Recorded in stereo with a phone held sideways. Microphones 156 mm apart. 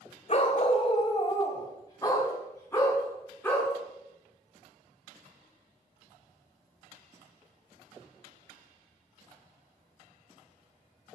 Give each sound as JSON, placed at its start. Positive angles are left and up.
{"t": 0.3, "sound": "a dog barking", "side_deg": 45, "distance_m": 2.5}